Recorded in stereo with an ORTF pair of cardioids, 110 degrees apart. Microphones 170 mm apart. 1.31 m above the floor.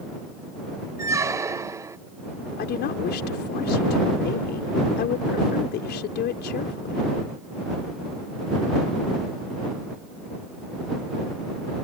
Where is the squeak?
15° right.